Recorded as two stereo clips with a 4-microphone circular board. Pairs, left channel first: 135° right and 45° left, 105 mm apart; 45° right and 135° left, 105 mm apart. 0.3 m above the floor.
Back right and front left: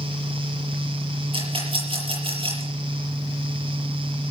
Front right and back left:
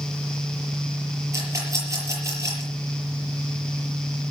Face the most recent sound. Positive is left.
turn(degrees=75)